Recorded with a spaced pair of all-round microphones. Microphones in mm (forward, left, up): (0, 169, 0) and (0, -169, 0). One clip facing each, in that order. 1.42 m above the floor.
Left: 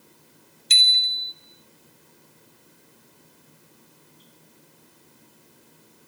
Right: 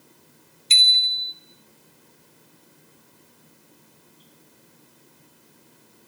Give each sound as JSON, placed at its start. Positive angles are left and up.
{"t": 0.7, "sound": "a bicycle bell", "side_deg": 20, "distance_m": 3.5}